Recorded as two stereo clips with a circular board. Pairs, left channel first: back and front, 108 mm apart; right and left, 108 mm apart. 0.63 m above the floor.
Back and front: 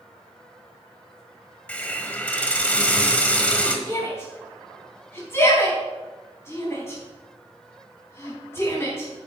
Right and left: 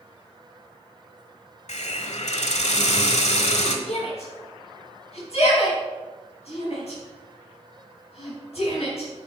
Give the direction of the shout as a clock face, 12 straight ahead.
4 o'clock.